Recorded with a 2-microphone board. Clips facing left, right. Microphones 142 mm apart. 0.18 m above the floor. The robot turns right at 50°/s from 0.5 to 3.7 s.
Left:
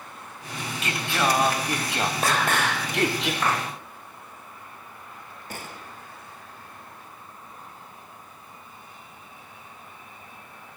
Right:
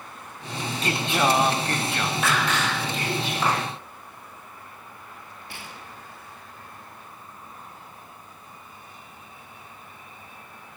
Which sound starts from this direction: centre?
A clap, at 3.4 s.